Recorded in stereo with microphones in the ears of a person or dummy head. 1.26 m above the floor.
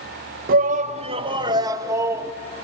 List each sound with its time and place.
0.5 s a shout: 50° right (ahead or behind), 1.0 m; by 2.3 s 10° right (ahead or behind), 1.5 m